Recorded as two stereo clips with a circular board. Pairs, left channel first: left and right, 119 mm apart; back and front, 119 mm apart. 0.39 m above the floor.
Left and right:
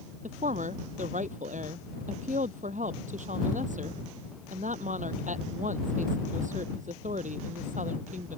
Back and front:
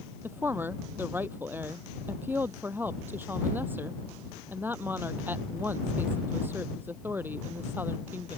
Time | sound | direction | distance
0.2 | a woman speaking | 75° right | ?